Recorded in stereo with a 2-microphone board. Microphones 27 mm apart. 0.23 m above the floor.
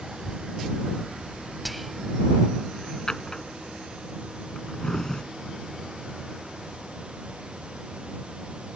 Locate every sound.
0.2 s a child speaking: 35° right (ahead or behind)
1.6 s whispering: centre (ahead or behind)
3.1 s a drawer: 30° left (ahead or behind)